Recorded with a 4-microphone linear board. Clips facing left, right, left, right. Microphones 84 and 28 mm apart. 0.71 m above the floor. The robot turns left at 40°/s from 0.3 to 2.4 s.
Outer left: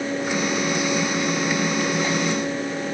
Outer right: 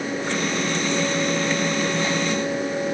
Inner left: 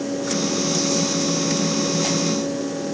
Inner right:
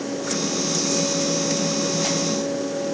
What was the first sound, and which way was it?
Only background noise.